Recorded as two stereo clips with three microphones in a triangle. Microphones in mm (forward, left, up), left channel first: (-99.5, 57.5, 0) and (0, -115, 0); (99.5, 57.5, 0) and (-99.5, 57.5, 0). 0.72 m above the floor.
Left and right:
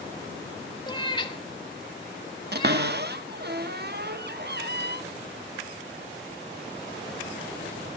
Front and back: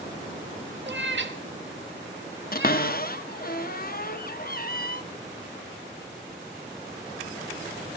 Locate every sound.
0.9 s a cat meowing: 175° right, 0.7 m
2.5 s a cupboard door: 35° right, 0.6 m